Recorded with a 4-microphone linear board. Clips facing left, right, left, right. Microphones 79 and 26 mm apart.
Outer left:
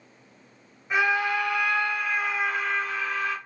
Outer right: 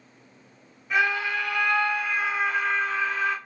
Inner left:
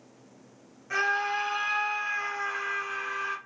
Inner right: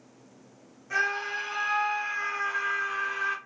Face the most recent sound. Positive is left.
turn(degrees=-25)  # may be behind; listen again after turning